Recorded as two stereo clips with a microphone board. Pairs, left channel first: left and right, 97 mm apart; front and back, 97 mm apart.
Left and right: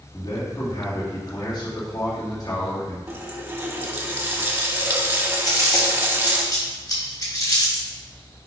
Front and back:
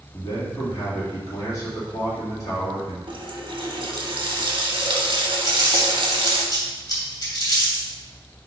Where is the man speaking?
50° left, 2.5 m.